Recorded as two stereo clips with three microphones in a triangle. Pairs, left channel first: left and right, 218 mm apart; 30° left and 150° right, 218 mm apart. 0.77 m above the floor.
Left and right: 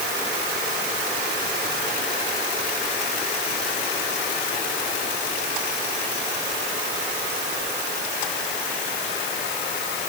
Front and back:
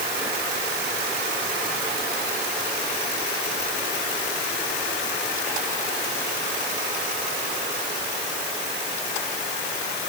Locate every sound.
Only background noise.